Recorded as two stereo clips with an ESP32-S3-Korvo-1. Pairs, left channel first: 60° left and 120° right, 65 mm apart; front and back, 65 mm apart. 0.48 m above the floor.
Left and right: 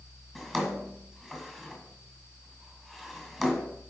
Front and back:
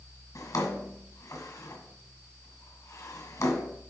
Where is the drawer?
25° right, 1.5 m.